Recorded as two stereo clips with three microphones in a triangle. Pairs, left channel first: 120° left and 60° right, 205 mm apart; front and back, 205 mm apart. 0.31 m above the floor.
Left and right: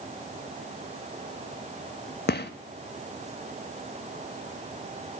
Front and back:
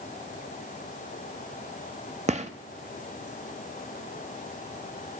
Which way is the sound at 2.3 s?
130° left.